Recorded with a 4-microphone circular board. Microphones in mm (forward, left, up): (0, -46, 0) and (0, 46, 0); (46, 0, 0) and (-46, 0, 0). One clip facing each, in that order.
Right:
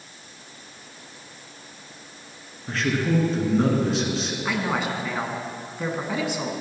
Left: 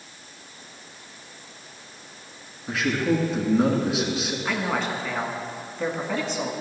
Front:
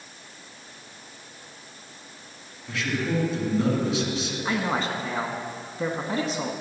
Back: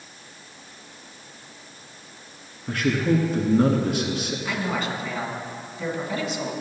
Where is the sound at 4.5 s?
15° right, 1.4 m.